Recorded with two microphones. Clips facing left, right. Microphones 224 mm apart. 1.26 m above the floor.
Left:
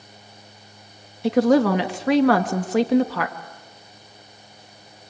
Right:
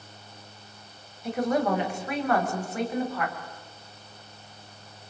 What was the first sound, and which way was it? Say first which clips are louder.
A woman speaking: left 9 dB; 85° left.